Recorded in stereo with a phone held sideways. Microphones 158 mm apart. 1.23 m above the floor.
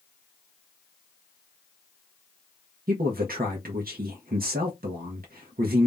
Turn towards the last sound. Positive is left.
turn(degrees=-70)  # may be behind; listen again after turning